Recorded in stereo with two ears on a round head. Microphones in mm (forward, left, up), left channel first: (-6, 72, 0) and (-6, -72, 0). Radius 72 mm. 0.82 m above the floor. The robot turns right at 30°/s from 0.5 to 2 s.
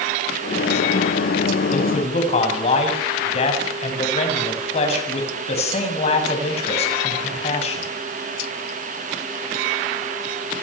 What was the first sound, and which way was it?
A man speaking, 50° left (ahead or behind).